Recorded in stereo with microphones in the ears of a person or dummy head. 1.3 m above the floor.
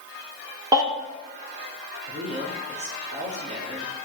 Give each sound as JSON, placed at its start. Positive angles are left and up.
{"t": 0.7, "sound": "a baby crying", "side_deg": -25, "distance_m": 1.9}
{"t": 2.1, "sound": "a man speaking", "side_deg": -30, "distance_m": 2.5}